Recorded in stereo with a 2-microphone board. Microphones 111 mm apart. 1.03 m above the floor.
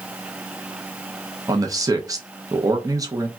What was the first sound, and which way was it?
A man speaking, 30° right (ahead or behind).